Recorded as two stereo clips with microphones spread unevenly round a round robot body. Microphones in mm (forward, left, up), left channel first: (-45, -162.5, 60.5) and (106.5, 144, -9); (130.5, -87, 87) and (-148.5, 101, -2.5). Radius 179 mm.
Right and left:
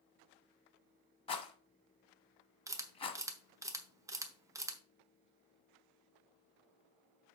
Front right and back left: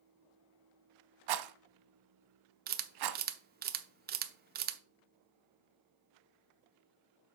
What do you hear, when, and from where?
1.3 s a rattle: 170° left, 0.8 m
2.7 s a camera shutter: 125° left, 0.7 m